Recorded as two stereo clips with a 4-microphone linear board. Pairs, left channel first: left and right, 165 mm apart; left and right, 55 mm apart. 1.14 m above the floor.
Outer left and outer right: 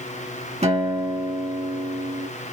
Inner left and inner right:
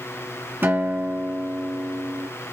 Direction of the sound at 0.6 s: 45° right (ahead or behind).